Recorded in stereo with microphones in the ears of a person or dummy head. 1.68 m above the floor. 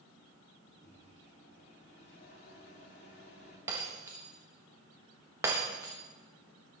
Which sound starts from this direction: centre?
Breaking glass, at 3.7 s.